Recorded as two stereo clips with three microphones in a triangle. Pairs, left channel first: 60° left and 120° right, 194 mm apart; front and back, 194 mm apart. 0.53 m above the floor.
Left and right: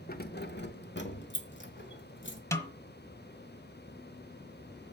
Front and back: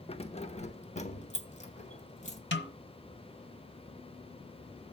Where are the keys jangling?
50° left, 0.8 m.